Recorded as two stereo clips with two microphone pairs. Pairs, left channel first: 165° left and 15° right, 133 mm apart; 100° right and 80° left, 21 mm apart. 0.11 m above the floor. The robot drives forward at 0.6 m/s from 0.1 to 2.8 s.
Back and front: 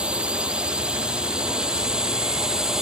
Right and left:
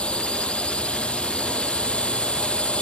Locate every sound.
0.0 s a drone: 100° right